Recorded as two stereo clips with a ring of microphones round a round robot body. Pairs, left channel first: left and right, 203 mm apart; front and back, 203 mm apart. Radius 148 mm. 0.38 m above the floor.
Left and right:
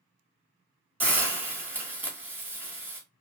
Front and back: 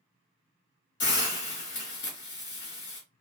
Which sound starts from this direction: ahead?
A hiss, at 1.0 s.